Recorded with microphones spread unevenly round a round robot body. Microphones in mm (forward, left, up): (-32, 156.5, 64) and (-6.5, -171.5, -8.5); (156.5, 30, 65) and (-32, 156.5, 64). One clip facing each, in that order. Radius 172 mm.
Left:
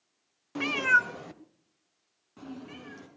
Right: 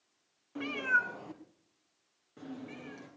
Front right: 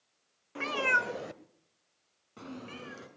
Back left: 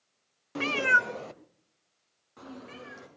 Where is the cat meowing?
110° left, 0.6 m; by 3.1 s 20° left, 3 m.